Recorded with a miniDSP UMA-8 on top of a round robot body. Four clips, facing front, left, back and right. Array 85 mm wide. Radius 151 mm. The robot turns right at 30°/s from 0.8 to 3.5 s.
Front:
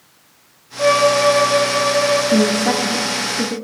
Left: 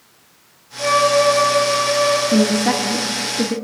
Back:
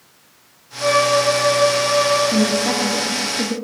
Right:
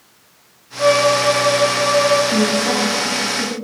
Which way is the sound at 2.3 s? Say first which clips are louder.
Left 1 dB, front 3 dB; 45° left.